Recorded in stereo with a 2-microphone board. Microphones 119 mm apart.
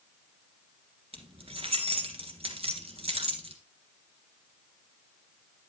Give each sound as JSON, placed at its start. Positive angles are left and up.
{"t": 1.1, "sound": "keys jangling", "side_deg": -50, "distance_m": 1.6}